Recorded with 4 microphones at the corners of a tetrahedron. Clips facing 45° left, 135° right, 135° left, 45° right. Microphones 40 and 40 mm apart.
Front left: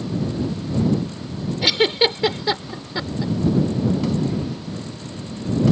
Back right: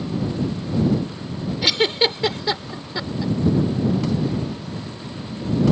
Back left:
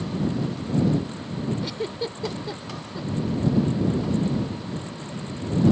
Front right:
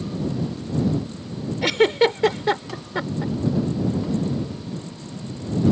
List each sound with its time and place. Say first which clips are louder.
1.6 s a giggle: front left 1 dB, front right 12 dB; 40° right